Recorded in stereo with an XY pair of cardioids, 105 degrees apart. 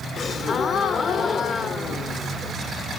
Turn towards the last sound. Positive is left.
turn(degrees=45)